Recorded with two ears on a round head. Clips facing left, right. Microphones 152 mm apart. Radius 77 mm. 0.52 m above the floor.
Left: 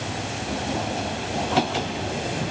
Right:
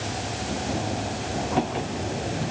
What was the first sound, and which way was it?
Only background noise.